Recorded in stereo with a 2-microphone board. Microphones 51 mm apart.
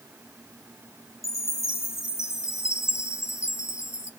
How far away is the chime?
About 1.2 m.